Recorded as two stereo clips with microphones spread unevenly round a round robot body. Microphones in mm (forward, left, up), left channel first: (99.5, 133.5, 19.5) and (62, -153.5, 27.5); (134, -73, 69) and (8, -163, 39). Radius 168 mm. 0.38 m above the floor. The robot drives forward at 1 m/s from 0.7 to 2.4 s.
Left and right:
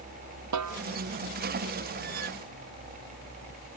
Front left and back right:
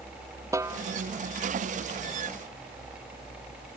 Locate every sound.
0.5 s a snare drum: 70° right; by 0.8 s 75° right